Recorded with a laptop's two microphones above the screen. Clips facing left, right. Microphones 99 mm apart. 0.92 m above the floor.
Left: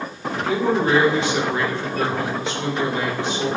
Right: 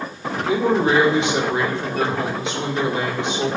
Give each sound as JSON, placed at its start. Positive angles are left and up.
{"t": 0.5, "sound": "a man speaking", "side_deg": -20, "distance_m": 1.2}